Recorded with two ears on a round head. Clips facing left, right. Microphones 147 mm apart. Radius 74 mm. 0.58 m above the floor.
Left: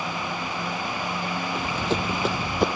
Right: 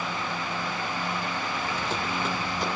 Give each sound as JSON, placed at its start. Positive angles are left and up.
{"t": 1.6, "sound": "running footsteps", "side_deg": 60, "distance_m": 1.4}